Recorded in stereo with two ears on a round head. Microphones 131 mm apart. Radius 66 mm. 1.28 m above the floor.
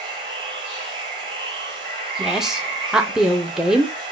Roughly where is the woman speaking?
Centre.